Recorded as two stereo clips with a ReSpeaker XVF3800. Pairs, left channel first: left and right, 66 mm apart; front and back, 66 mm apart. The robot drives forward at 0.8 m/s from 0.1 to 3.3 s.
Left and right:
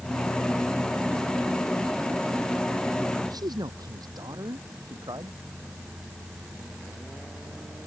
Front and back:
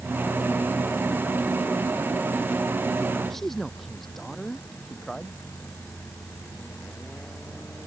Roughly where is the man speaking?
Right.